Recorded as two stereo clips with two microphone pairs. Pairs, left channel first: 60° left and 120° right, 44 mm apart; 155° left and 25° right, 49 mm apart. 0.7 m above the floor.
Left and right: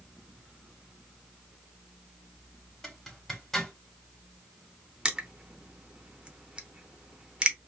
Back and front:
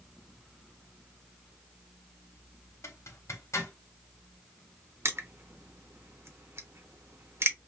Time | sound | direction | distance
2.8 | a zipper | 145° left | 1.1 m
5.0 | crushing | 55° right | 0.6 m